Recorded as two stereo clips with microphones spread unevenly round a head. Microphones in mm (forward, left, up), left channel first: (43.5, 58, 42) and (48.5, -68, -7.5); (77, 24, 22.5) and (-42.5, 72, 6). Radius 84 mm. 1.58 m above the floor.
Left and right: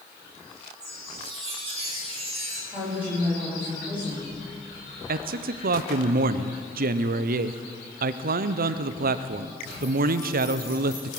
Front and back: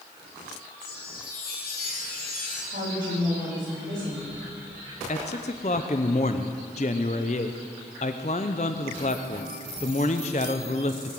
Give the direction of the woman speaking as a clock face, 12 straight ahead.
6 o'clock.